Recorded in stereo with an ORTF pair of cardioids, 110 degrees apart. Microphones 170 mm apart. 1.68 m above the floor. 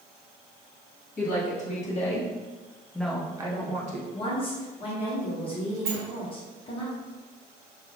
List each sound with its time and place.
1.2 s a woman speaking: 50° left, 1.7 m; by 4.0 s 50° right, 0.9 m
4.1 s a woman speaking: 30° left, 1.3 m
5.8 s a sliding door: 65° right, 0.8 m